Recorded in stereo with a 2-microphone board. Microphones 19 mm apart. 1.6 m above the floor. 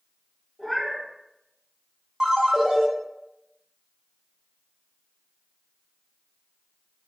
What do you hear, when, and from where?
0.6 s a cat meowing: 10° left (ahead or behind), 1.1 m
2.2 s a ringtone: 35° right (ahead or behind), 0.5 m